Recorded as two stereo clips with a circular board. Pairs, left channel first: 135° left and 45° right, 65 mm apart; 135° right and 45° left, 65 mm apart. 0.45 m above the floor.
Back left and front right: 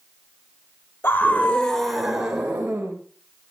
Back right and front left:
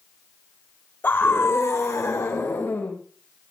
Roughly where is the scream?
Behind.